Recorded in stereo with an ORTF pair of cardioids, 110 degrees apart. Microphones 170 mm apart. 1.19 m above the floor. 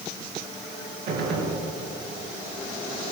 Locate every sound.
1.1 s a gunshot: 70° right, 4.5 m